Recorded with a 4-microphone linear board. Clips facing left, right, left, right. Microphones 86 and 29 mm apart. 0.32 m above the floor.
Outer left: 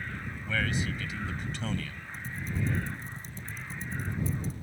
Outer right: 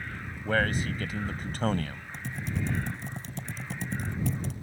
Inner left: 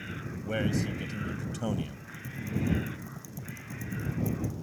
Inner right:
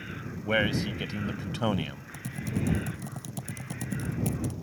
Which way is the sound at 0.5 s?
50° right (ahead or behind).